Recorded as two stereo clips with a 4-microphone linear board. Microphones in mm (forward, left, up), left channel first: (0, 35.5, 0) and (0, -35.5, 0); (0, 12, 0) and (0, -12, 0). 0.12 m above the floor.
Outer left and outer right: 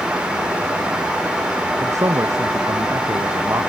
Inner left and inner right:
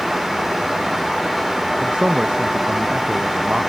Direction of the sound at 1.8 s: 50° right (ahead or behind).